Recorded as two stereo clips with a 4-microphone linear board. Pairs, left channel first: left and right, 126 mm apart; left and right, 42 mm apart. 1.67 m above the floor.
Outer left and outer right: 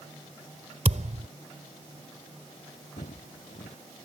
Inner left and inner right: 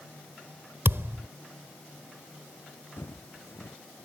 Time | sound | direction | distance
0.8 | a thud | 70° right (ahead or behind) | ?
3.0 | footsteps | 75° left (ahead or behind) | ?